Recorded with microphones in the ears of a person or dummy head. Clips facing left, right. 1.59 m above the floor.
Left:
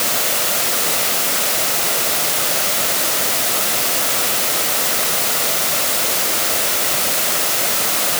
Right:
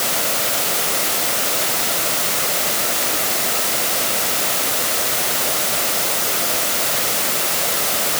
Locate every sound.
Only background noise.